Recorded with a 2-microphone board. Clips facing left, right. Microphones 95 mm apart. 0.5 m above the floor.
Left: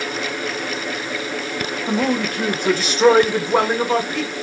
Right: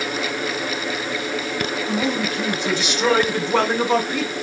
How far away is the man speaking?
About 2.5 m.